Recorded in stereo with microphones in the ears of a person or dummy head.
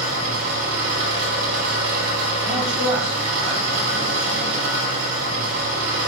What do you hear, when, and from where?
0.0 s an engine running: 65° right (ahead or behind), 1.1 m
2.5 s a man speaking: 10° left (ahead or behind), 1.7 m